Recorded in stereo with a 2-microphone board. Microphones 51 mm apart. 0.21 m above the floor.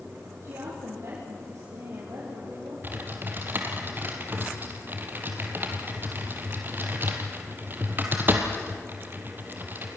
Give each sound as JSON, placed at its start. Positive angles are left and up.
{"t": 0.4, "sound": "a woman speaking", "side_deg": -70, "distance_m": 7.5}
{"t": 2.8, "sound": "typing on a keyboard", "side_deg": -40, "distance_m": 3.0}